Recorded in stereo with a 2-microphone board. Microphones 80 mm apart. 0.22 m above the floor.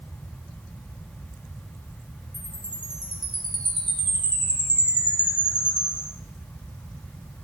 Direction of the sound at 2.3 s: 60° right (ahead or behind).